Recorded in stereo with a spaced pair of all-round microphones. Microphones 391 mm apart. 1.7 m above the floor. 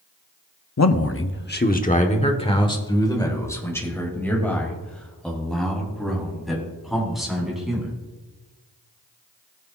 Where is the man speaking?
45° left (ahead or behind), 0.7 m; by 7.9 s centre (ahead or behind), 4.5 m.